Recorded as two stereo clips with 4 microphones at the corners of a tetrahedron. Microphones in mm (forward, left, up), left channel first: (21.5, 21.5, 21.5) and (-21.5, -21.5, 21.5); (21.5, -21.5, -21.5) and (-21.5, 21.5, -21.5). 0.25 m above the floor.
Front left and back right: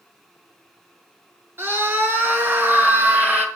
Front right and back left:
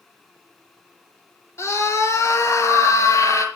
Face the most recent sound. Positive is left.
turn(degrees=-75)